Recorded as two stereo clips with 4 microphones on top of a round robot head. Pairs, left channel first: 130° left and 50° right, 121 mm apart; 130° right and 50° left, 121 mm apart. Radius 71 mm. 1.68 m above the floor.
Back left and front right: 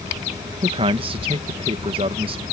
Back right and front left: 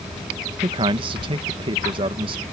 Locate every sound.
0.6 s a man speaking: straight ahead